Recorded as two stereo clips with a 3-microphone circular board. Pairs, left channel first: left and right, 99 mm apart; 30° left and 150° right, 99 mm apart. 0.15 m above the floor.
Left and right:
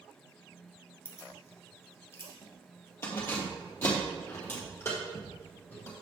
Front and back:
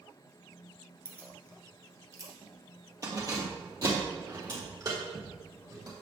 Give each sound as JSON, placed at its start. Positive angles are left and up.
{"t": 1.1, "sound": "keys jangling", "azimuth_deg": 145, "distance_m": 1.4}